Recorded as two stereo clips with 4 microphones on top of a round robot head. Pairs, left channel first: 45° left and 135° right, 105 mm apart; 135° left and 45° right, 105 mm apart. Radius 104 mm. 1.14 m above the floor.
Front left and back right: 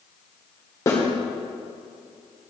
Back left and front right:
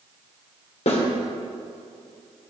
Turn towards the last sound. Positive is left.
turn(degrees=110)